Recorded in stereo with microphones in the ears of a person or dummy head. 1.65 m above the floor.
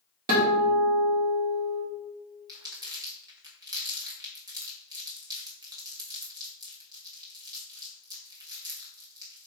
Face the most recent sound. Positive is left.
turn(degrees=-30)  # may be behind; listen again after turning